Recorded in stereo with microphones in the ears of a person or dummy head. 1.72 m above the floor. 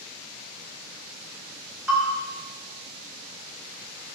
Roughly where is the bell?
Centre.